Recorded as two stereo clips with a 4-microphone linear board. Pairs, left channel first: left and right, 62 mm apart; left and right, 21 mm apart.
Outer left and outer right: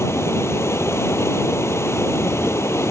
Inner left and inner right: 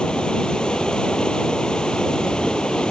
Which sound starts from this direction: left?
Running water, at 0.0 s.